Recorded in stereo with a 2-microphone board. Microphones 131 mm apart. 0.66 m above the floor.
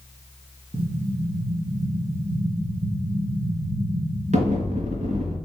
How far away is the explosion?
About 3 m.